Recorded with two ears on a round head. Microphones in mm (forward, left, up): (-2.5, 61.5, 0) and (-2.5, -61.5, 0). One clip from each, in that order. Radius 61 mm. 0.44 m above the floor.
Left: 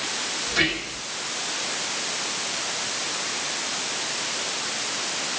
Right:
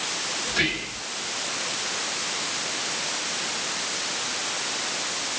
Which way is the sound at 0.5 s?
10° right (ahead or behind).